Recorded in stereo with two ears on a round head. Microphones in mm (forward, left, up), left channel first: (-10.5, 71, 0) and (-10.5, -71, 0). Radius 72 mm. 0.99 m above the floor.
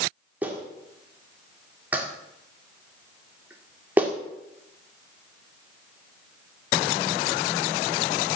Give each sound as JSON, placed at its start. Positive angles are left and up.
{"t": 0.4, "sound": "a clap", "side_deg": -10, "distance_m": 1.8}